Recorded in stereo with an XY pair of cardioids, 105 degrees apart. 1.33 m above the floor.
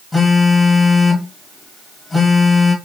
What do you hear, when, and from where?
0.1 s a phone buzzing: 20° left, 1.7 m